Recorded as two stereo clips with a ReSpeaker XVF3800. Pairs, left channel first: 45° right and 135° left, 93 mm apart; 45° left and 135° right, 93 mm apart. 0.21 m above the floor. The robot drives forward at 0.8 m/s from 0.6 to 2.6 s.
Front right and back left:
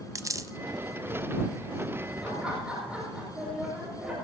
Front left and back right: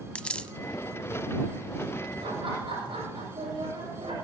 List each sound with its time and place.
0.1 s a dropped coin: 115° left, 0.6 m
2.2 s laughter: 145° right, 8 m